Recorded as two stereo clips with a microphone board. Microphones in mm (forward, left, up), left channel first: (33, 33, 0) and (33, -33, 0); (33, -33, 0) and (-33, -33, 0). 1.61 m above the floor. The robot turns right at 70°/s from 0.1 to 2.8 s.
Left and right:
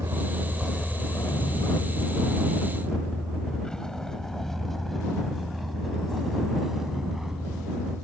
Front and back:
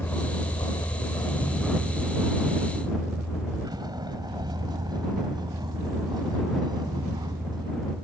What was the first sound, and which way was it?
A vehicle, 55° right.